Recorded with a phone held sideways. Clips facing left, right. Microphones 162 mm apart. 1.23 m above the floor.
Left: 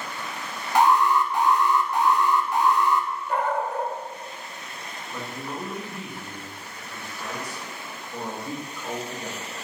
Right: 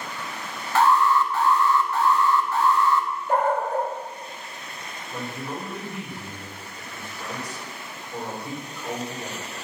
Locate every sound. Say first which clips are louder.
0.8 s an alarm: even; 15° left (ahead or behind), 1.2 m
3.3 s a dog barking: right 4 dB; 40° right (ahead or behind), 1.6 m
5.1 s a man speaking: right 2 dB; 15° right (ahead or behind), 5 m